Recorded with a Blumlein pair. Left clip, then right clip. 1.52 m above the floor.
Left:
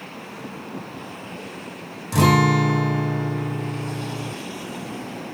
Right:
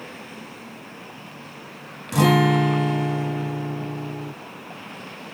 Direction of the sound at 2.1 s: 5° left.